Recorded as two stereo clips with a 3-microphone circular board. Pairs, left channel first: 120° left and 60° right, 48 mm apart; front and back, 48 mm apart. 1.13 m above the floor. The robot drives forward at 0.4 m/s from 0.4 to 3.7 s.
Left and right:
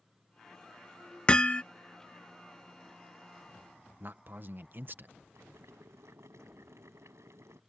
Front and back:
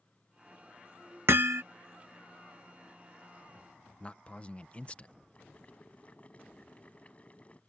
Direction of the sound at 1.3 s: Straight behind.